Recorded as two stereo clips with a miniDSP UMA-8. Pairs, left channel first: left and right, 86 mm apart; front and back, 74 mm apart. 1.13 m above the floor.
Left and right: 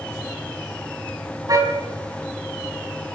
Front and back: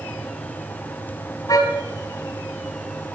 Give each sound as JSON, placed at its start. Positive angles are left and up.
{"t": 1.5, "sound": "a car horn", "azimuth_deg": -40, "distance_m": 4.5}